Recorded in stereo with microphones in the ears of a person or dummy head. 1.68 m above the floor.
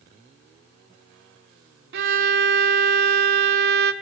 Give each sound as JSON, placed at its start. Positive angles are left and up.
{"t": 1.9, "sound": "a violin", "side_deg": -50, "distance_m": 0.7}